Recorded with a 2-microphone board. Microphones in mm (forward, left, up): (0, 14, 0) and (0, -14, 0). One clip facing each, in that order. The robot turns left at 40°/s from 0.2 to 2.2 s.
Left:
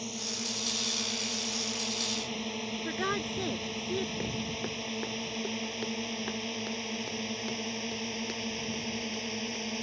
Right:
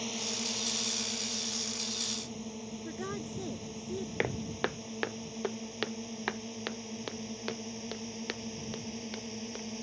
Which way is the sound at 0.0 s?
15° right (ahead or behind).